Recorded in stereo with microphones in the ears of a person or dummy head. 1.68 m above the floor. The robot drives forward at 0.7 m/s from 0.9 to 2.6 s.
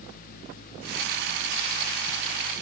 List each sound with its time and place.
Only background noise.